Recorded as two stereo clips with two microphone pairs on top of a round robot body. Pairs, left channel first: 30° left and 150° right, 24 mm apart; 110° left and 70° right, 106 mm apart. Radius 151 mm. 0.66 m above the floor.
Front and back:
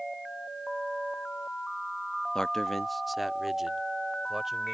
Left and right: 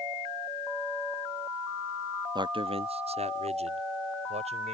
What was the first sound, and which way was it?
A man speaking, 30° right.